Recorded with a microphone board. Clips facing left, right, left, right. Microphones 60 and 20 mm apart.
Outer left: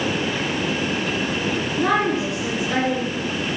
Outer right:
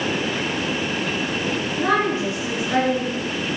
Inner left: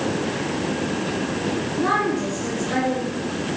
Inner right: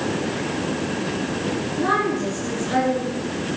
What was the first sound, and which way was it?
A woman speaking, 5° right (ahead or behind).